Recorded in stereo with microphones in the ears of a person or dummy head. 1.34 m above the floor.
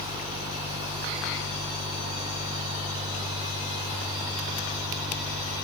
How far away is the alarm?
I don't hear an alarm.